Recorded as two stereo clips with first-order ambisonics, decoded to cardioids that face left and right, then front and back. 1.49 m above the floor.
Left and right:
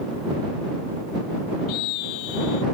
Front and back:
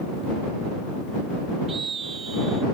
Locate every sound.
1.7 s a scream: 115° left